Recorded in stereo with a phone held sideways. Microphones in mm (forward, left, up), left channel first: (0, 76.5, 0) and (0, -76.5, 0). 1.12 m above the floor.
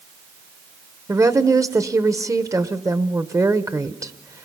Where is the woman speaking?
20° right (ahead or behind), 0.8 m.